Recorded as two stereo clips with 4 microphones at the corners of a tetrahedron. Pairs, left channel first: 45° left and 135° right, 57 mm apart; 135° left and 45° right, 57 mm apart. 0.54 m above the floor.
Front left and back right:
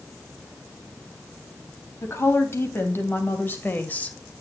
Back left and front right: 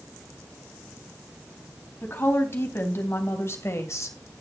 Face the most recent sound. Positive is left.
turn(degrees=110)